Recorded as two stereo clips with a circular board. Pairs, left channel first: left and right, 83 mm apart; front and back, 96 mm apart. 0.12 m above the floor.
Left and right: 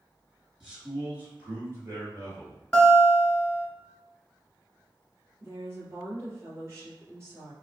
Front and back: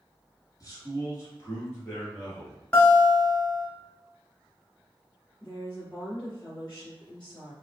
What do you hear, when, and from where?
0.6 s a man speaking: 10° right, 1.7 m; by 2.6 s 65° right, 2 m
2.7 s a guitar: 45° left, 1.1 m
5.4 s a woman speaking: 75° right, 1.9 m